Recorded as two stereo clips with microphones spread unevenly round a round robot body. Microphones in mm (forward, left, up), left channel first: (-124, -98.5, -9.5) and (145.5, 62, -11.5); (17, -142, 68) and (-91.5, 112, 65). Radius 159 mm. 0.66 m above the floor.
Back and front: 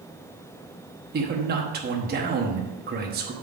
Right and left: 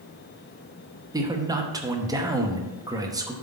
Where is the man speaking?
50° left, 1.0 m.